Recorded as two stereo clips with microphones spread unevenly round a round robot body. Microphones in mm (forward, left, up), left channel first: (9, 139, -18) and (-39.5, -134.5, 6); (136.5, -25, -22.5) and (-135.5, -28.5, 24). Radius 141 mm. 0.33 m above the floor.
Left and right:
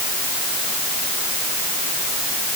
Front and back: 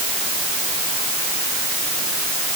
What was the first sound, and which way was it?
Only background noise.